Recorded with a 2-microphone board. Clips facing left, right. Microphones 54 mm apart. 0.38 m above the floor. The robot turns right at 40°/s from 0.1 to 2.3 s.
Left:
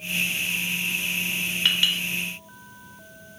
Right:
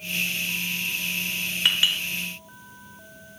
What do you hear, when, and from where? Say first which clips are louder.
1.6 s a clink: right 1 dB; 15° right (ahead or behind), 0.7 m; by 2.0 s 20° right (ahead or behind), 0.7 m